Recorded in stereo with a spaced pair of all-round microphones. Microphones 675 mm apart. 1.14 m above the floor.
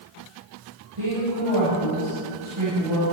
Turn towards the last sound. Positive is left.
turn(degrees=-45)  # may be behind; listen again after turning